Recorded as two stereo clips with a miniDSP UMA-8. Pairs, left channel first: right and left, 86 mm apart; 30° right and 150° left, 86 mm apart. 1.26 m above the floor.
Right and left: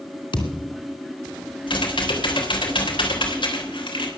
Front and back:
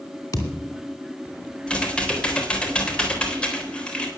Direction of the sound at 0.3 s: 75° right.